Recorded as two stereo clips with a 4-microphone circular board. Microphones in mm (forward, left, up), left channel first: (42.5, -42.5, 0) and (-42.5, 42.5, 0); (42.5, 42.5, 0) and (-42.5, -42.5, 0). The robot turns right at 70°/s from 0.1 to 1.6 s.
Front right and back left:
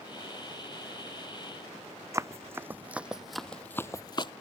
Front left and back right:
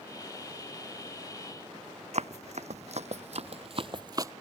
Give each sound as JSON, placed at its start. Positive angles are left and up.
{"t": 2.1, "sound": "running footsteps", "azimuth_deg": -160}